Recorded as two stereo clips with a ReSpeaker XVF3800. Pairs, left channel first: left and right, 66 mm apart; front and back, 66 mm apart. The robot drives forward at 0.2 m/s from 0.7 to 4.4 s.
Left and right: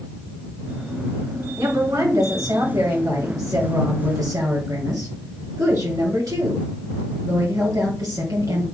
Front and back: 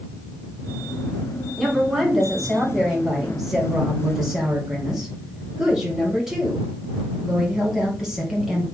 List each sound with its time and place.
1.6 s a woman speaking: 90° right, 3.5 m; by 8.7 s 100° right, 3.5 m